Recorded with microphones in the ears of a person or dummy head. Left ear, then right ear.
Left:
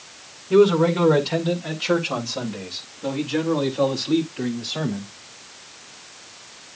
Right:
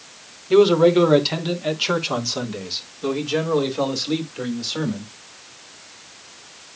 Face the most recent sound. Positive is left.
turn(degrees=-85)